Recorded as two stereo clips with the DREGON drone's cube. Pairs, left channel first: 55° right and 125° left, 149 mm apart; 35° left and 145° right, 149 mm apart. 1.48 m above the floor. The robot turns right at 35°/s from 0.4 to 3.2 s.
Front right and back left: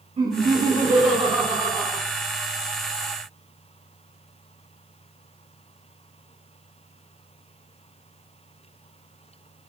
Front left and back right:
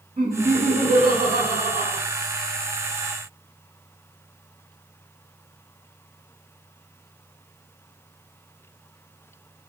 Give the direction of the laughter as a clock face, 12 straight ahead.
7 o'clock.